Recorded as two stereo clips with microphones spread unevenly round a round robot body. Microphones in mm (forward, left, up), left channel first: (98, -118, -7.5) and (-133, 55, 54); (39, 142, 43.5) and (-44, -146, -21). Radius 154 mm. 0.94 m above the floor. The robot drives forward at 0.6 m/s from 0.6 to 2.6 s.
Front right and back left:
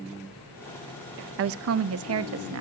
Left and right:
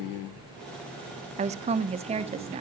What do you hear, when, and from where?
1.4 s a woman speaking: 165° right, 0.5 m; by 2.6 s 175° right, 1.2 m